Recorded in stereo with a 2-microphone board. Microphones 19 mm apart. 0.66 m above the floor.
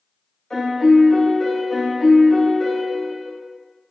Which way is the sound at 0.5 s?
25° left (ahead or behind).